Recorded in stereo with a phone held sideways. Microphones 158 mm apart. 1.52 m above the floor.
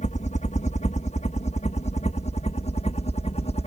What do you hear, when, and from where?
0.0 s a helicopter: 50° left (ahead or behind); by 3.7 s 45° left (ahead or behind)